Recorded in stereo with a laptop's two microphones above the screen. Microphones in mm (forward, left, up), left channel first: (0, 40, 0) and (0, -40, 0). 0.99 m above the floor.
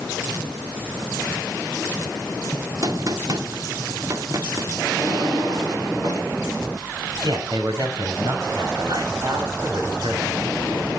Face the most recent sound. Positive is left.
turn(degrees=-65)  # may be behind; listen again after turning